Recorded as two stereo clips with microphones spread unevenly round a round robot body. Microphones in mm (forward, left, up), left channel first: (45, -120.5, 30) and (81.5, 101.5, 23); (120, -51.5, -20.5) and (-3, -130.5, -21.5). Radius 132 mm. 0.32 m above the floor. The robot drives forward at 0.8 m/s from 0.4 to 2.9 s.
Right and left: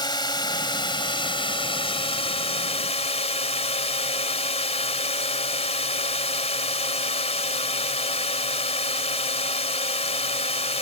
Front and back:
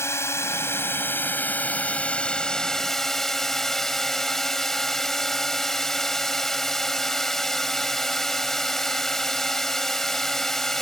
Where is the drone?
35° right; by 10.8 s 55° right.